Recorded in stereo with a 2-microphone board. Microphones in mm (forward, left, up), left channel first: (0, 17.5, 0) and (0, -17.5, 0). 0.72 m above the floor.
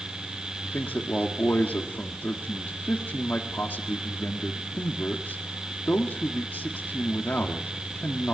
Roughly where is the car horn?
No car horn in this recording.